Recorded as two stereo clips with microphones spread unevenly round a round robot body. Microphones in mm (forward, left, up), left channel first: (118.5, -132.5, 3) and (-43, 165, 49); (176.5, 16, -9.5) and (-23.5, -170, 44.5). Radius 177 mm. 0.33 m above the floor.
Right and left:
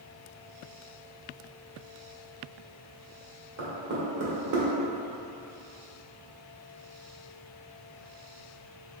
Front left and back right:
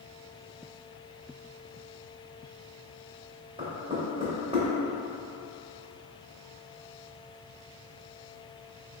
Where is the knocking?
145° left, 1.0 m.